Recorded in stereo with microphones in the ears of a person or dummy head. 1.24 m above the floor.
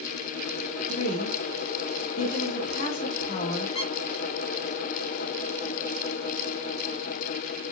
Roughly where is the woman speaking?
Left.